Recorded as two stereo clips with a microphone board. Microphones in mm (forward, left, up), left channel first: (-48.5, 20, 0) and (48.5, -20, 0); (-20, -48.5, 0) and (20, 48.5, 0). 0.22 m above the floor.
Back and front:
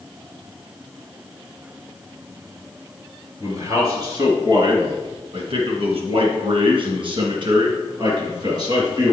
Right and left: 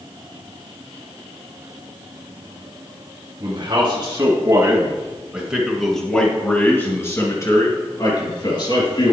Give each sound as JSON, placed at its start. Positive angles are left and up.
{"t": 3.4, "sound": "a man speaking", "azimuth_deg": 25, "distance_m": 2.5}